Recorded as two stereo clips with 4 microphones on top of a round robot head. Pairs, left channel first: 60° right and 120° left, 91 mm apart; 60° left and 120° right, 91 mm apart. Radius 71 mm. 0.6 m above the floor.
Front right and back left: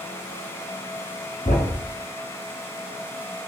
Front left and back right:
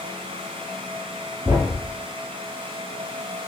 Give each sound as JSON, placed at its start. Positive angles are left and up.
{"t": 1.4, "sound": "a thud", "azimuth_deg": -55, "distance_m": 0.7}